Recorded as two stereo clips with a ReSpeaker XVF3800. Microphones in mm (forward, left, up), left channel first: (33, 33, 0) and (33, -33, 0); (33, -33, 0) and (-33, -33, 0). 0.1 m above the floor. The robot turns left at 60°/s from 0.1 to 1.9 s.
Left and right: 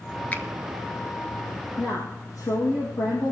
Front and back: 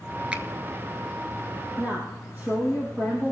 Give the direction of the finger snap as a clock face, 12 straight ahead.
8 o'clock.